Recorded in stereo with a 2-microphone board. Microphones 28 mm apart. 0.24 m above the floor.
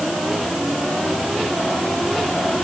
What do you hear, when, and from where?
Only background noise.